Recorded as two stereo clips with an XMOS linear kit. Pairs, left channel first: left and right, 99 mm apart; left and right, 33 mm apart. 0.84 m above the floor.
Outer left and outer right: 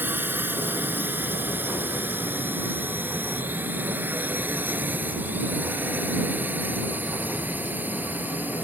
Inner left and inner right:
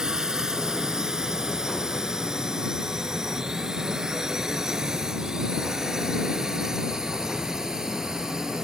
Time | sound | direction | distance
0.0 | a drone | 20° right (ahead or behind) | ?